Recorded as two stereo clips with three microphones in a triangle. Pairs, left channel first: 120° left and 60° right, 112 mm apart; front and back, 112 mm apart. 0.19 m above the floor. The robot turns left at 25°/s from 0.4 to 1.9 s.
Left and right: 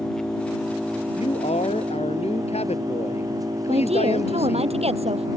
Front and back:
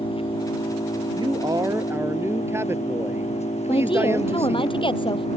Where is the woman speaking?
40° right.